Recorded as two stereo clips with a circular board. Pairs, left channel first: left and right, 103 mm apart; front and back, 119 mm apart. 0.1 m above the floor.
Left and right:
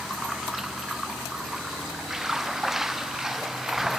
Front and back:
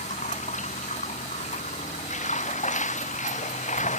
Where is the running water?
5° right.